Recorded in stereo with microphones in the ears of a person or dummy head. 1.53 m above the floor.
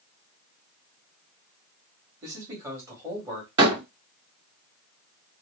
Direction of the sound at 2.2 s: 10° right (ahead or behind).